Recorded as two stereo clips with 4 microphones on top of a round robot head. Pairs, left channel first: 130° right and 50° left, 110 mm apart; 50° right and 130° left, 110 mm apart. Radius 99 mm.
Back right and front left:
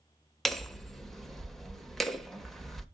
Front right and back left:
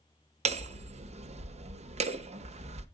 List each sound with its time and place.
0.5 s hammering: 140° left, 1.0 m